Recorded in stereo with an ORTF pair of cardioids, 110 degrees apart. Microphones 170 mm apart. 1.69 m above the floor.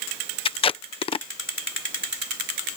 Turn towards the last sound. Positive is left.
turn(degrees=35)